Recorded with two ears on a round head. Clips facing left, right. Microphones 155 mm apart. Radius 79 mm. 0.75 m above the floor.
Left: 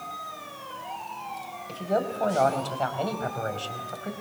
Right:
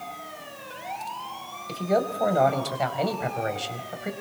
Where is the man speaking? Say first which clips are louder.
Right 3 dB; 15° right (ahead or behind), 4 m.